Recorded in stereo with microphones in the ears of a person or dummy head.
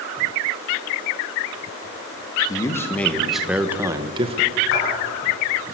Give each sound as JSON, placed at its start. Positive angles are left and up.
{"t": 2.5, "sound": "a man speaking", "side_deg": 20, "distance_m": 2.0}
{"t": 4.7, "sound": "a clap", "side_deg": 65, "distance_m": 10.0}